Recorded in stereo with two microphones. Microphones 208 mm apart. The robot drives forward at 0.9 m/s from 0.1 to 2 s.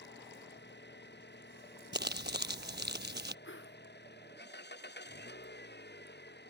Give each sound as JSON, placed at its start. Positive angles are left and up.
{"t": 0.0, "sound": "an engine running", "side_deg": 55}
{"t": 1.9, "sound": "crumpling", "side_deg": -60}
{"t": 3.5, "sound": "a whoosh", "side_deg": 70}